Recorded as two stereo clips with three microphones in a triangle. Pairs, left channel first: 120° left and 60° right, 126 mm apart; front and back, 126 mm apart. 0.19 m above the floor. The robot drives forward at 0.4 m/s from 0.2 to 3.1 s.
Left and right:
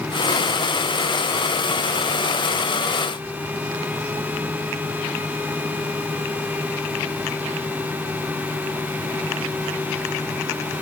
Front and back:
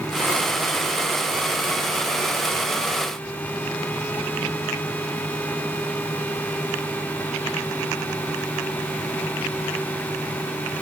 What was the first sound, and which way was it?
Only background noise.